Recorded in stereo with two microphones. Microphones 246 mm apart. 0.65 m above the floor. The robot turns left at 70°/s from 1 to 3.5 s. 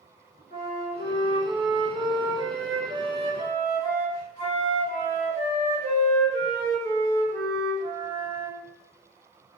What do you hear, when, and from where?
0.5 s a flute: 145° right, 1.2 m; by 8.6 s 40° left, 1.2 m